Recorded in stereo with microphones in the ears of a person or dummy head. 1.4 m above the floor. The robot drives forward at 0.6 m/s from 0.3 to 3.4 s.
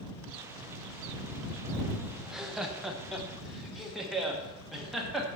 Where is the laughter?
5° right (ahead or behind), 0.7 m; by 5.3 s centre (ahead or behind), 1.3 m.